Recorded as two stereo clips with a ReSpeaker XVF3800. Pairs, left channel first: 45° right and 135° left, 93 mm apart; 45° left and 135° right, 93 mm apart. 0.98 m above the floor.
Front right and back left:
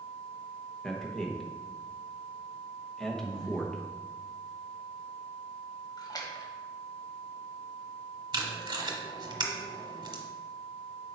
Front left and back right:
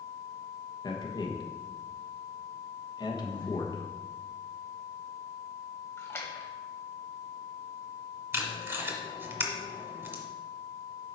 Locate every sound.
0.8 s a man speaking: 40° left, 1.1 m
3.2 s breathing: 5° right, 1.5 m
6.0 s a splash: 10° right, 1.3 m
8.3 s tape being pulled: 165° left, 1.2 m